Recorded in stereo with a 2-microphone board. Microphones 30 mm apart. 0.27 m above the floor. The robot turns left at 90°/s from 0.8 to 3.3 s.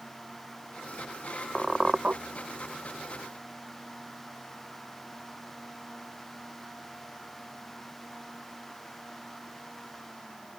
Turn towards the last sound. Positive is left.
turn(degrees=-155)